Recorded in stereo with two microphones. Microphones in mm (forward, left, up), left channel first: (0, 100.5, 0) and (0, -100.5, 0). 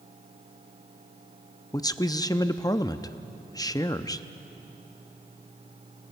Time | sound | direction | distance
1.7 | a man speaking | 20° left (ahead or behind) | 0.6 m